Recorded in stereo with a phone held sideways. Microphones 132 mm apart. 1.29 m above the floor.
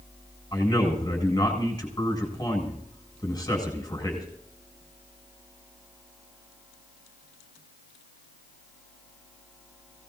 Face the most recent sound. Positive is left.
turn(degrees=25)  # may be behind; listen again after turning